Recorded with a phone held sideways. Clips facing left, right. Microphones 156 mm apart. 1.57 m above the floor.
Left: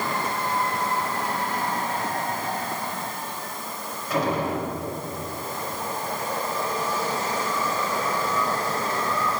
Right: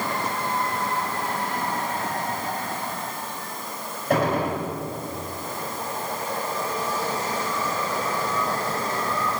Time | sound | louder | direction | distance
4.1 | a gunshot | right 2 dB | 60° right (ahead or behind) | 5 m